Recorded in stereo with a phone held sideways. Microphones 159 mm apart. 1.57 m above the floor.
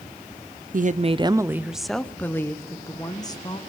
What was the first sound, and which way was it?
A woman speaking, 60° right (ahead or behind).